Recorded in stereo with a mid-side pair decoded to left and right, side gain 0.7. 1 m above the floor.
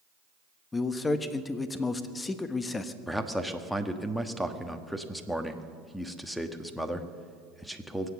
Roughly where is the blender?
I don't hear a blender.